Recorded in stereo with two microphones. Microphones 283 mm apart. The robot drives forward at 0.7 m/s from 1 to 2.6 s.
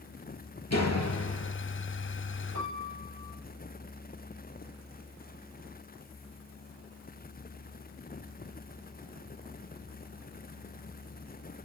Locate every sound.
0.7 s a door slam: 65° left (ahead or behind), 4.5 m; by 1.6 s 60° left (ahead or behind), 4.5 m
2.5 s a piano: 70° left (ahead or behind), 8.5 m